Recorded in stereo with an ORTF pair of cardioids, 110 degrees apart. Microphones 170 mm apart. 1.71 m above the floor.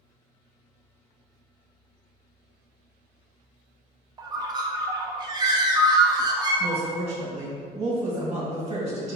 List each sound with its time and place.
4.2 s a bird: 25° right, 0.6 m
6.6 s a woman speaking: 40° right, 1.9 m